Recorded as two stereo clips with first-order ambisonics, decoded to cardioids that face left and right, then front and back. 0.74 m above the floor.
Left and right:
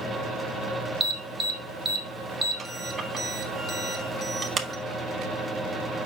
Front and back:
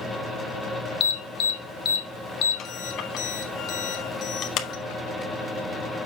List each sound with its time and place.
1.0 s an alarm: 15° right, 1.4 m